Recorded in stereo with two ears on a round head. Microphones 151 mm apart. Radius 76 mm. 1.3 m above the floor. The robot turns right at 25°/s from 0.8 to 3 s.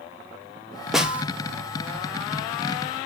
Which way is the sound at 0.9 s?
Centre (ahead or behind).